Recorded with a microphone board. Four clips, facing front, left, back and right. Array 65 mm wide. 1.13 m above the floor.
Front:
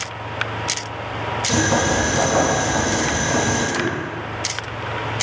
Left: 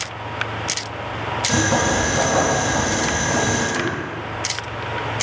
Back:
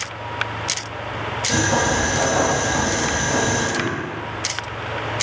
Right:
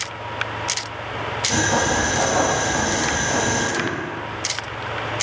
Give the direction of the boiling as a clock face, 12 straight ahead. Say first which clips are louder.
Left 1 dB, even; 11 o'clock.